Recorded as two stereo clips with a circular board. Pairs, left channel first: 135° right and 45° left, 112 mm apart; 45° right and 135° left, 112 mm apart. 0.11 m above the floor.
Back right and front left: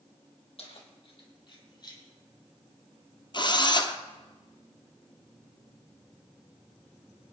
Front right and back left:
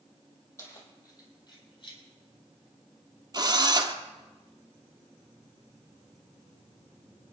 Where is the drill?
175° right, 1.5 m.